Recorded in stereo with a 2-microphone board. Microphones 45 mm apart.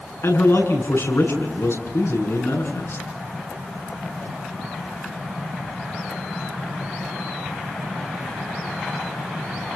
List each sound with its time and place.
0.2 s a man speaking: 70° left (ahead or behind), 7 m